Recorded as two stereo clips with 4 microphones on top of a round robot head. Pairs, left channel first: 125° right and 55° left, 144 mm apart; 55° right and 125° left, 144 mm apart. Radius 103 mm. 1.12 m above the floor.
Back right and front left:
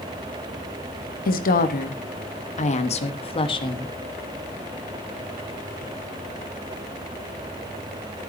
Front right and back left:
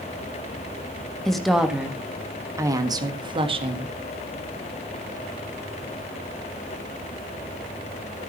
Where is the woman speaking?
140° right, 1.8 m; by 4.0 s 170° left, 1.9 m.